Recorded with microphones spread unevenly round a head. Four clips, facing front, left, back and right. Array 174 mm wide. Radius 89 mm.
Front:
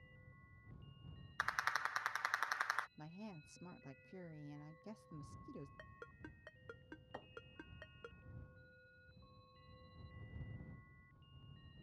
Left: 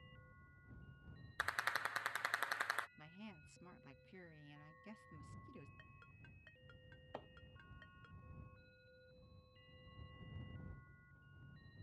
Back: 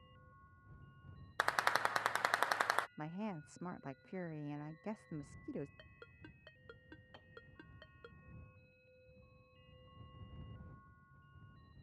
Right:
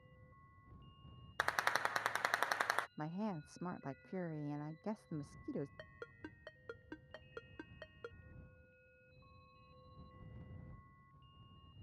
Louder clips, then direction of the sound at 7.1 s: Left 5 dB, front 8 dB; 55° left.